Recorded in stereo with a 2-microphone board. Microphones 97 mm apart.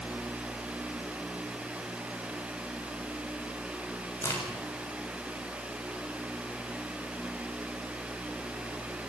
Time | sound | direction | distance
4.2 | a crack | 25° left (ahead or behind) | 6.5 m